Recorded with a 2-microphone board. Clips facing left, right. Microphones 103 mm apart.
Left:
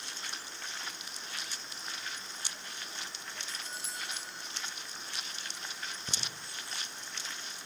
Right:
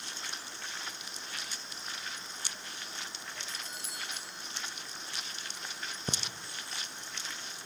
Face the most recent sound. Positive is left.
turn(degrees=-45)  # may be behind; listen again after turning